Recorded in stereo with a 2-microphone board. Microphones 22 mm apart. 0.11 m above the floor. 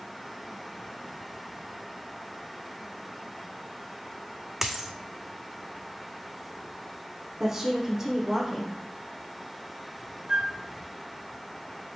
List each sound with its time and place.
4.6 s a dropped coin: 15° right (ahead or behind), 1.1 m
7.4 s a woman speaking: 25° right (ahead or behind), 4.5 m
10.3 s a flute: 45° right (ahead or behind), 0.8 m